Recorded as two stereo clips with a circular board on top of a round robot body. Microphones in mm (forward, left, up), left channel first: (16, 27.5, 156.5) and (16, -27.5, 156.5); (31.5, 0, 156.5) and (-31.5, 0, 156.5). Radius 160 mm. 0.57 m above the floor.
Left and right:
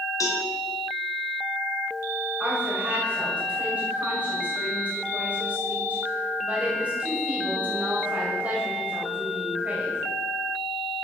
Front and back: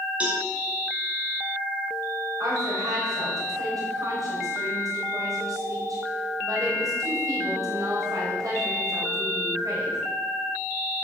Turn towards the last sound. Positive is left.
turn(degrees=-155)